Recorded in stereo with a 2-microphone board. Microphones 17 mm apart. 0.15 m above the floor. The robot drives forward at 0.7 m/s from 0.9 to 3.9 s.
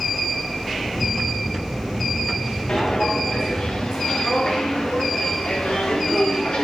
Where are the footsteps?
50° left (ahead or behind), 5 m; by 6.7 s 65° left (ahead or behind), 7.5 m.